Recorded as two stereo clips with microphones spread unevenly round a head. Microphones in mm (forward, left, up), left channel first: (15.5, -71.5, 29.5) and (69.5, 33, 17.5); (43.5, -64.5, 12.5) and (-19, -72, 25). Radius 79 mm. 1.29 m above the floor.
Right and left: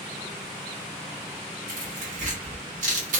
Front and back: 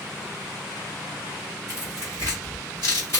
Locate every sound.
1.7 s tearing paper: 85° left, 1.1 m